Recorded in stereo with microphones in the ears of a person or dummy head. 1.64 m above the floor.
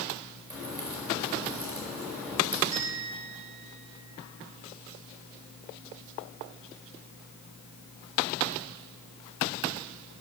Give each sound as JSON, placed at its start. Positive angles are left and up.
{"t": 0.5, "sound": "a crack", "side_deg": -5, "distance_m": 4.5}
{"t": 2.7, "sound": "a bell", "side_deg": -40, "distance_m": 2.5}